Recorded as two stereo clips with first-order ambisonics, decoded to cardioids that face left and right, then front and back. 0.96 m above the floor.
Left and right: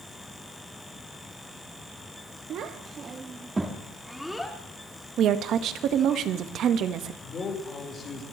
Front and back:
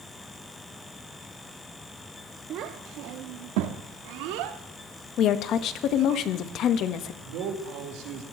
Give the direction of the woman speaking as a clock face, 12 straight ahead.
1 o'clock.